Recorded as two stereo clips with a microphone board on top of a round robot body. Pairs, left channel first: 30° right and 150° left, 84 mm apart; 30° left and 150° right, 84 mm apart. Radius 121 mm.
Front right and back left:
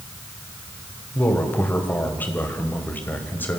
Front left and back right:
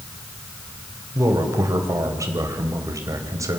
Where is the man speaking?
100° right, 3 m.